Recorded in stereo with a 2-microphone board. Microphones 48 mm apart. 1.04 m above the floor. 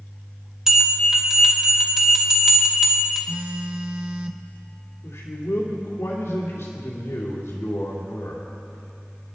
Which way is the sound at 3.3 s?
25° right (ahead or behind).